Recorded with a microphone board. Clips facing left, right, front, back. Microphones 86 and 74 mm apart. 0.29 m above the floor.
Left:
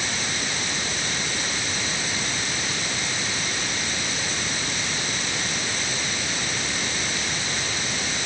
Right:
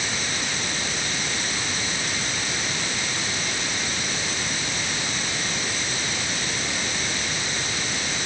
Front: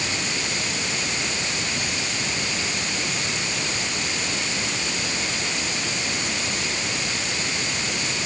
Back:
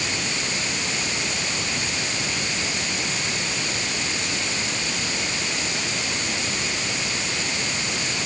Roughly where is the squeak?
No squeak in this recording.